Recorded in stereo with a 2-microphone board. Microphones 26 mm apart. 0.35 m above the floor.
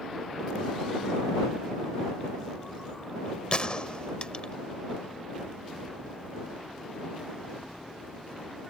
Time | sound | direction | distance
3.5 | a gunshot | 40° left (ahead or behind) | ?